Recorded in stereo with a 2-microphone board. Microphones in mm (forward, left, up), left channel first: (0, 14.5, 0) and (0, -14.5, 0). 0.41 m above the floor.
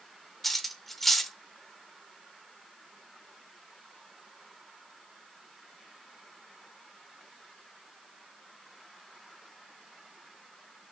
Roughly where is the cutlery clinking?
Centre.